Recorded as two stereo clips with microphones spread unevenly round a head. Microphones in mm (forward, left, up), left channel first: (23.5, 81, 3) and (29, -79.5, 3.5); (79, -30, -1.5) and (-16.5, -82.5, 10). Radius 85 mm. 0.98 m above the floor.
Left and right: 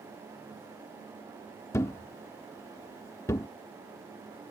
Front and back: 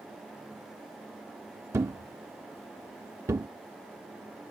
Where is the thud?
160° left.